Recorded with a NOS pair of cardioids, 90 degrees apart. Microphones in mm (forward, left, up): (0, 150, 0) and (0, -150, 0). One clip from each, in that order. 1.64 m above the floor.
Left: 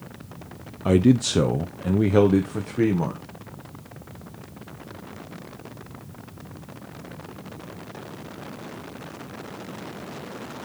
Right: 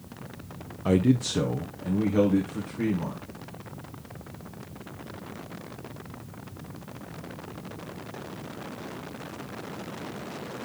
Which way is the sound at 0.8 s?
10° left.